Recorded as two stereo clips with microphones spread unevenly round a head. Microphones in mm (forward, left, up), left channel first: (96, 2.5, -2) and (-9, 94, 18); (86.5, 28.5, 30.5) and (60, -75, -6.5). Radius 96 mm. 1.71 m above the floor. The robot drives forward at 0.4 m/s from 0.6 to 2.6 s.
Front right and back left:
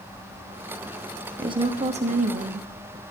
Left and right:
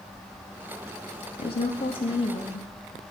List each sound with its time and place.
1.4 s a woman speaking: 85° left, 0.7 m; by 2.7 s 125° left, 0.8 m